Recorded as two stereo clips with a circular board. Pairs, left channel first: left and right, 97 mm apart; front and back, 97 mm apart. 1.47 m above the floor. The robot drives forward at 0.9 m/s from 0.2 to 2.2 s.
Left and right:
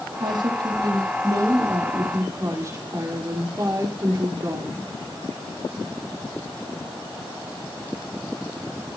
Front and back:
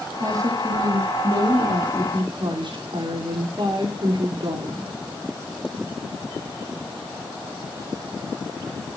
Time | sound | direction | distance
0.2 | a woman speaking | 125° right | 3 m